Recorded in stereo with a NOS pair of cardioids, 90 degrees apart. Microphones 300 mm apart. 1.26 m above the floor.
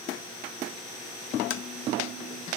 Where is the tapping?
45° left, 0.9 m.